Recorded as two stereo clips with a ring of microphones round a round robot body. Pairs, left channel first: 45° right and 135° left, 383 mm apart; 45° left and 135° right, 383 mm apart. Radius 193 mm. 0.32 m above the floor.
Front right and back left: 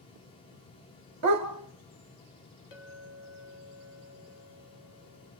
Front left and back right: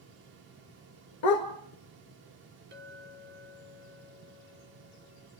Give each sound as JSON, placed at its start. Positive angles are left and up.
{"t": 1.2, "sound": "a dog barking", "azimuth_deg": 85, "distance_m": 2.0}
{"t": 2.7, "sound": "a clink", "azimuth_deg": -70, "distance_m": 1.9}